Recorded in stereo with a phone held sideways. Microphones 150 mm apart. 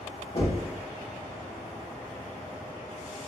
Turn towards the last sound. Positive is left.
turn(degrees=45)  # may be behind; listen again after turning